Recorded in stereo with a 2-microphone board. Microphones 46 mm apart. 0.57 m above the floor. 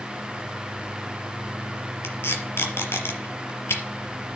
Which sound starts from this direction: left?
Tape being pulled, at 2.0 s.